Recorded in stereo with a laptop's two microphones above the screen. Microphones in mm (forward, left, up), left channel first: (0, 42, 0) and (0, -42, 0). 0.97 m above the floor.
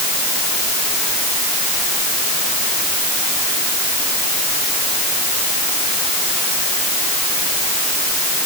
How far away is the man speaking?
I don't hear a man speaking.